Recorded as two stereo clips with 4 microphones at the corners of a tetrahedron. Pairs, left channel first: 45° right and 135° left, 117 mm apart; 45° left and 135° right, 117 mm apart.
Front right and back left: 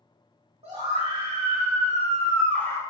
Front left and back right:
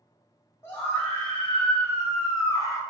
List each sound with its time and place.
0.6 s a scream: 105° left, 1.6 m; by 2.8 s straight ahead, 0.7 m